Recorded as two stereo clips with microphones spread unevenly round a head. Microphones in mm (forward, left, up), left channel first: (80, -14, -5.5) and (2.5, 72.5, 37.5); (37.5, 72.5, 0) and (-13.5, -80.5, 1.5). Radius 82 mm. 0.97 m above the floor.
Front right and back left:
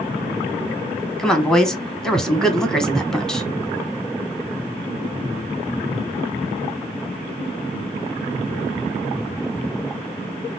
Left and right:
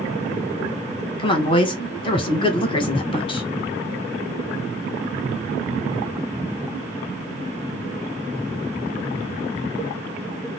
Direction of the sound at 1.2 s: 20° left.